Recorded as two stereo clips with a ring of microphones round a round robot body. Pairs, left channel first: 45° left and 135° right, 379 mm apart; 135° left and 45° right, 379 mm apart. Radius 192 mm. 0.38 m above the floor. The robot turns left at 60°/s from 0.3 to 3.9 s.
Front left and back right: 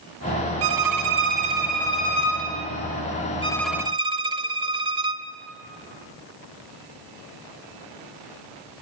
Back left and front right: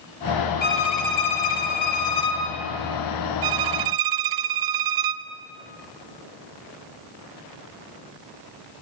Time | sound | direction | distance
0.6 | a violin | 160° right | 3 m
3.4 | a violin | 30° right | 1.0 m